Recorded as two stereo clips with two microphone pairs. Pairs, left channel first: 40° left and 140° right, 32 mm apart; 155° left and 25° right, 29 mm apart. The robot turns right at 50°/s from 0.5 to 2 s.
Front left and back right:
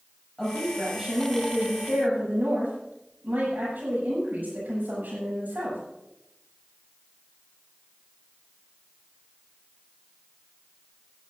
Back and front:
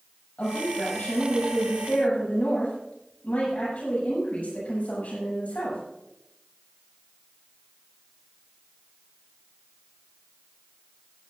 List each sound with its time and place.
0.4 s a woman speaking: 115° left, 8 m; by 5.8 s 170° right, 8 m